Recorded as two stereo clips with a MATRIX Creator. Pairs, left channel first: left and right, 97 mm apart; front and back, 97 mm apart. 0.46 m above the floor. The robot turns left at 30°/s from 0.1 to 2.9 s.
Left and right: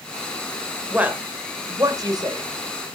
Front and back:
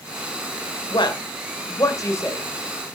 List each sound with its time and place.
0.9 s a woman speaking: 15° right, 1.5 m; by 2.5 s 60° right, 1.5 m